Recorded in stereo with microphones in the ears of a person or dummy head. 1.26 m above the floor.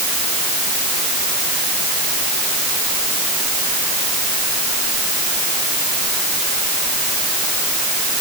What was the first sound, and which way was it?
Only background noise.